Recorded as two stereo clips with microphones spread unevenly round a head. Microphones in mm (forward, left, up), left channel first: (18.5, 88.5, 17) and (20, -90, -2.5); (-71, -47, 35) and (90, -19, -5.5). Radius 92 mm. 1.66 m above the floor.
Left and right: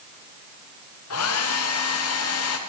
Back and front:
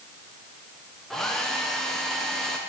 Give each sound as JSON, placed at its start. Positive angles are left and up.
{"t": 1.1, "sound": "a hair dryer", "azimuth_deg": 100, "distance_m": 1.3}